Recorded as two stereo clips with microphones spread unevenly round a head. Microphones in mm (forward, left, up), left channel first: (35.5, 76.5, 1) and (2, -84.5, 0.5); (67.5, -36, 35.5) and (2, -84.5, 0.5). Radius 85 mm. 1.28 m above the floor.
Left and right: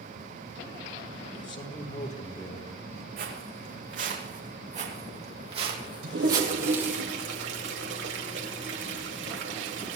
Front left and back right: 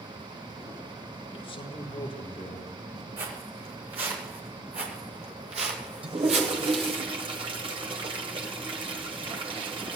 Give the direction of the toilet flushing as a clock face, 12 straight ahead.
4 o'clock.